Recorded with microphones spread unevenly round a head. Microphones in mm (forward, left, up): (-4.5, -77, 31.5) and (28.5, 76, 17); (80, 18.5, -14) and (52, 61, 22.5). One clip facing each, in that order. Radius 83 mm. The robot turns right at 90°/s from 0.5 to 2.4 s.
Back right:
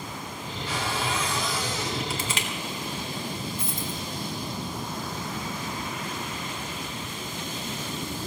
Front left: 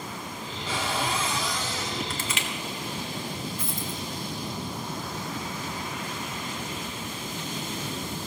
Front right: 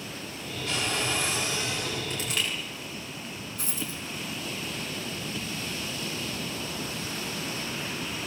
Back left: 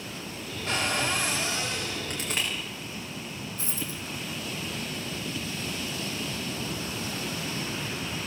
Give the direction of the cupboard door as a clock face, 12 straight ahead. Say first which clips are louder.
Front left 1 dB, back left 2 dB; 9 o'clock.